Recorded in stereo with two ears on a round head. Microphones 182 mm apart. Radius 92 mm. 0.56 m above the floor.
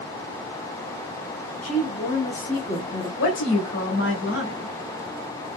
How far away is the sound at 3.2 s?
About 1.2 m.